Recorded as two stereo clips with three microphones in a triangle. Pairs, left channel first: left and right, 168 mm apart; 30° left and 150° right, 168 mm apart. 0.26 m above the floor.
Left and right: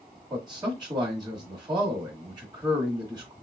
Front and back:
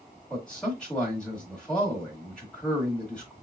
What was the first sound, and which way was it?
A man speaking, 50° right.